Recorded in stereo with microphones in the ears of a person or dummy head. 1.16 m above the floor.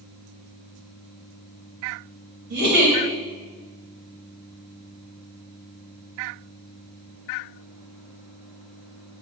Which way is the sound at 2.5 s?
45° right (ahead or behind).